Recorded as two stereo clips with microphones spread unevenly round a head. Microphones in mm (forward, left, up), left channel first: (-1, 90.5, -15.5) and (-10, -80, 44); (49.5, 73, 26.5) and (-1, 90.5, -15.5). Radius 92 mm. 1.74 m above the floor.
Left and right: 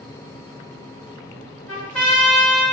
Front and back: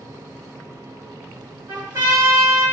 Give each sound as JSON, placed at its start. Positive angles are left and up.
{"t": 1.7, "sound": "a trumpet", "azimuth_deg": -130, "distance_m": 1.5}